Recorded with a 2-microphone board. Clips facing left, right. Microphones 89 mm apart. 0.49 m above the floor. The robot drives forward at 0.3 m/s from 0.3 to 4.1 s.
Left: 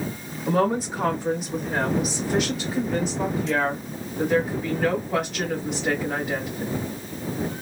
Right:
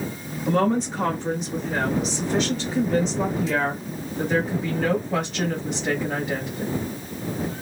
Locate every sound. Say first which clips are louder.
0.5 s a woman speaking: right 1 dB; 5° left (ahead or behind), 0.7 m